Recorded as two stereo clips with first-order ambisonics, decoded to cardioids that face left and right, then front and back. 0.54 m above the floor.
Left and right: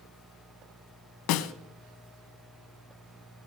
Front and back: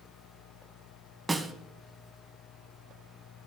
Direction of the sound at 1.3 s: 100° left.